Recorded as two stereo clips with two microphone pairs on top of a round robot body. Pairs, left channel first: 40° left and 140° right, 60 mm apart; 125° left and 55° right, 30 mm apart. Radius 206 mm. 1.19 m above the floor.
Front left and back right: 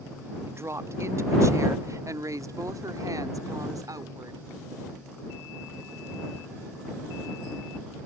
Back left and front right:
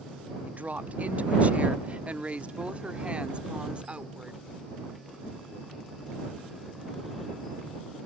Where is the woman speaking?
90° right; by 4.4 s 115° right.